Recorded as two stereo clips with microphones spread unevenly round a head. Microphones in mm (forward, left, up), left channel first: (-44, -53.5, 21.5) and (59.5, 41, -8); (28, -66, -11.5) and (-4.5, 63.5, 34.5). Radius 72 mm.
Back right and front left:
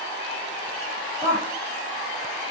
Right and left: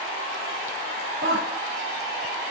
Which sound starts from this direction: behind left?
A woman speaking, at 1.2 s.